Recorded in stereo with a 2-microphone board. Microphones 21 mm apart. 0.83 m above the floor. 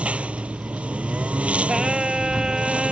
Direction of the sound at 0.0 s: 80° right.